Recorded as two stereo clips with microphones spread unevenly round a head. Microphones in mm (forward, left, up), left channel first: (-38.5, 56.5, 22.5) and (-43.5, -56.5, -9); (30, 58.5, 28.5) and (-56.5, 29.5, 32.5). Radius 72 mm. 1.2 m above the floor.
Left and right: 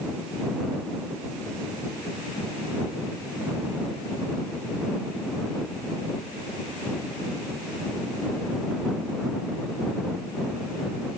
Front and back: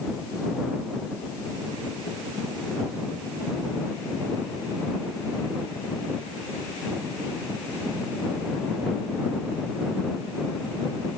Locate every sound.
Only background noise.